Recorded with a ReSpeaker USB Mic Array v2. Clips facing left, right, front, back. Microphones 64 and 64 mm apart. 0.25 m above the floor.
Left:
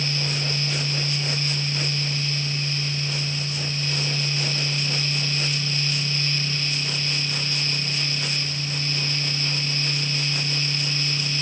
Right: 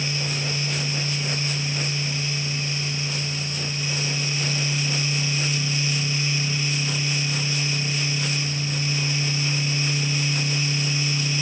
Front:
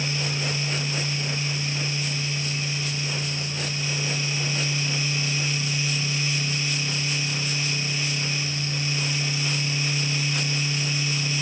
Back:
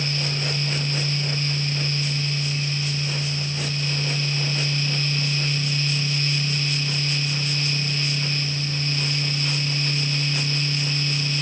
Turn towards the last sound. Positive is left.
No sound to turn to.